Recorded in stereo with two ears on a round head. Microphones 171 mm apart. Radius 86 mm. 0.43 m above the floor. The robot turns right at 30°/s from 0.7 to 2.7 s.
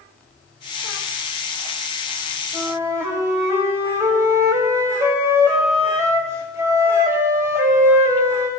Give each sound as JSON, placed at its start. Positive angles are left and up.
{"t": 2.5, "sound": "a flute", "side_deg": -10, "distance_m": 2.0}